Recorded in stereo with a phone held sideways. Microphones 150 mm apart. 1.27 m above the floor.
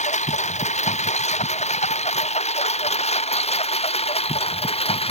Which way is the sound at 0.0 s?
50° left (ahead or behind).